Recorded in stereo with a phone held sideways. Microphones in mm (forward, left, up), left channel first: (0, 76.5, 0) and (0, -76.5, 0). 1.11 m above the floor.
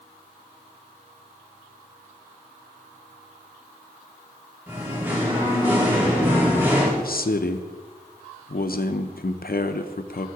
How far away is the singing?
About 2.5 m.